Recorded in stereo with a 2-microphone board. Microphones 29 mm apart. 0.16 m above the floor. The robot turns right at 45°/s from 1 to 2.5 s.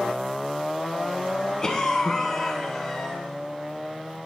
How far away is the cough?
About 1.4 m.